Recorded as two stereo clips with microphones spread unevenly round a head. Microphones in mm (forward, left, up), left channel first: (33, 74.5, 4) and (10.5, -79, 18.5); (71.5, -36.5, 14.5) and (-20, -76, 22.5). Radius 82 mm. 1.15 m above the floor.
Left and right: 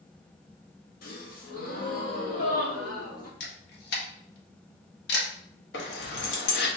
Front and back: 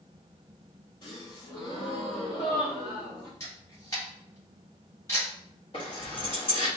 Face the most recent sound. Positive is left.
turn(degrees=80)